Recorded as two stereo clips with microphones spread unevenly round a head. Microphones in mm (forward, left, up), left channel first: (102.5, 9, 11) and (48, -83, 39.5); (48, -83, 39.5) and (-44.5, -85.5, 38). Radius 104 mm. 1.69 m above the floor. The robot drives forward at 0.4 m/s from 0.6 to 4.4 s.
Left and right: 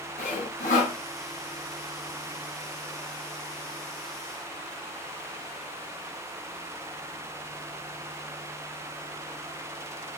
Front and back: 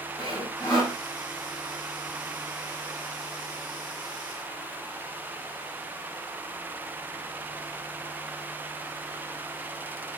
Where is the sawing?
75° left, 1.4 m; by 1.0 s 85° left, 1.4 m.